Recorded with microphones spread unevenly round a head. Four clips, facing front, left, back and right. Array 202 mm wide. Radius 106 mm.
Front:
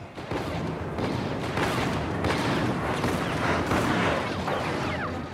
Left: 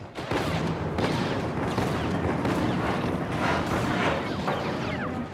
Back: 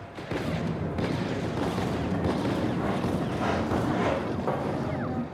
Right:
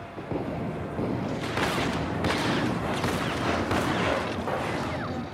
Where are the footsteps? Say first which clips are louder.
Left 3 dB, back 1 dB; 135° left, 1.4 m; by 5.2 s straight behind, 3.5 m.